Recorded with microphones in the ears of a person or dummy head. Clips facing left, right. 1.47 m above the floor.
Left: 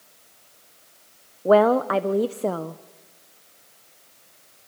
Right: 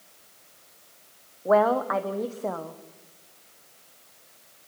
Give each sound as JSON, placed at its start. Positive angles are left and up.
{"t": 1.4, "sound": "a woman speaking", "side_deg": 40, "distance_m": 0.8}